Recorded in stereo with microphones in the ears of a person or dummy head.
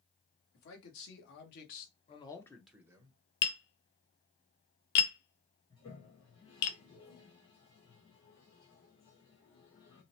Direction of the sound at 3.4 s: 65° left (ahead or behind).